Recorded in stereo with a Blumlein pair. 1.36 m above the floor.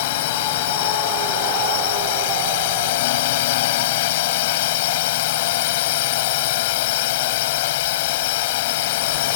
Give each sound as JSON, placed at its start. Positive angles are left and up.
{"t": 0.0, "sound": "a drone", "azimuth_deg": 50}